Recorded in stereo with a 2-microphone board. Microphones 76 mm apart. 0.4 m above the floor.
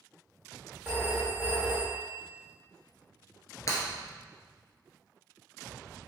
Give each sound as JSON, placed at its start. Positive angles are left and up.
{"t": 0.8, "sound": "a phone ringing", "side_deg": -20, "distance_m": 0.9}
{"t": 3.7, "sound": "breaking glass", "side_deg": 40, "distance_m": 1.0}